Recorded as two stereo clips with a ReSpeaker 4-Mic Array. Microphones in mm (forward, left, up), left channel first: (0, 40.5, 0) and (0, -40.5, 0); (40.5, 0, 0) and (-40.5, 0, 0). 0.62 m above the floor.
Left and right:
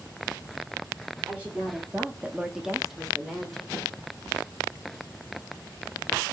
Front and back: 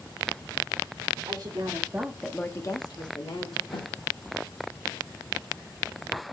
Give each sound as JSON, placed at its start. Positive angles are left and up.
{"t": 1.3, "sound": "a woman speaking", "azimuth_deg": -160, "distance_m": 1.7}
{"t": 3.7, "sound": "a snare drum", "azimuth_deg": 10, "distance_m": 3.5}